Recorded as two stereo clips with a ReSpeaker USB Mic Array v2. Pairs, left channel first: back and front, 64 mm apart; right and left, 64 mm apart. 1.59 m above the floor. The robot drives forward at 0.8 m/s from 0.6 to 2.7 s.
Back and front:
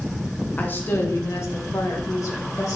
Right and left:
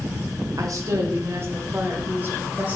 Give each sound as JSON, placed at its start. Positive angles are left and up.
{"t": 0.6, "sound": "a woman speaking", "azimuth_deg": 115, "distance_m": 1.3}